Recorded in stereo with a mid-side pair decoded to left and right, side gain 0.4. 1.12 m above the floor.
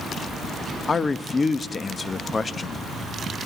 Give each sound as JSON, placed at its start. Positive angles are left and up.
{"t": 0.9, "sound": "a man speaking", "azimuth_deg": 35, "distance_m": 1.1}